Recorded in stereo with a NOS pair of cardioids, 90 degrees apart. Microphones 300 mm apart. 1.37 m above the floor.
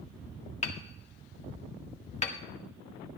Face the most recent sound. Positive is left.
turn(degrees=25)